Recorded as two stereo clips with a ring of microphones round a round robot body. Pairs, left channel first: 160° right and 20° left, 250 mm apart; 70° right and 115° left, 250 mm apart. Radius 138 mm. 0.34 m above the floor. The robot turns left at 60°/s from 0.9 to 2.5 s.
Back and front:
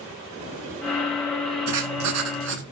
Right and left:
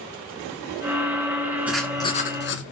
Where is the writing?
30° left, 1.8 m; by 2.6 s 20° right, 1.8 m.